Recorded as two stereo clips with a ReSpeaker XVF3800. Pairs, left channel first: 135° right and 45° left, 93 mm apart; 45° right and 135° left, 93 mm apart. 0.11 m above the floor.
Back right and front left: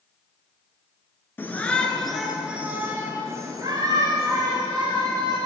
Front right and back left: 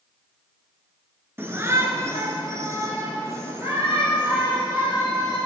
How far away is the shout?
About 1.7 m.